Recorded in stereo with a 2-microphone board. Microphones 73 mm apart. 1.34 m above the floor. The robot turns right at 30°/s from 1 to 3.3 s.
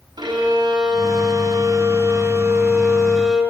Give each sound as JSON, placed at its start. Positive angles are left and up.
{"t": 0.2, "sound": "a violin", "azimuth_deg": -75, "distance_m": 6.0}